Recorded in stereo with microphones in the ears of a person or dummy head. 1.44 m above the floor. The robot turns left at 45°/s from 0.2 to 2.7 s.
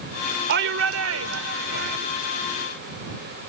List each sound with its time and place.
0.5 s a shout: 60° right; by 2.0 s 125° right